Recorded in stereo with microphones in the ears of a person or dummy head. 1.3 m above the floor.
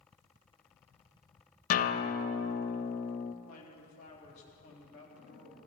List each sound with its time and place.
1.7 s a guitar: 45° left (ahead or behind), 0.6 m
3.4 s a man speaking: 40° left (ahead or behind), 3 m